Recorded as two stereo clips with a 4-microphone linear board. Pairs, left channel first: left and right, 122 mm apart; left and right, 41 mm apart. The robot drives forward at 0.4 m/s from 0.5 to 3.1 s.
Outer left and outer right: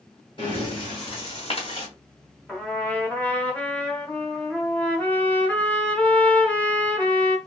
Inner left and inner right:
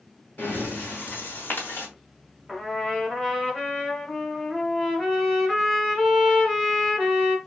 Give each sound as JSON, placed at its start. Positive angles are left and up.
{"t": 0.4, "sound": "breathing", "side_deg": 45, "distance_m": 2.0}
{"t": 2.5, "sound": "a trumpet", "side_deg": 10, "distance_m": 1.0}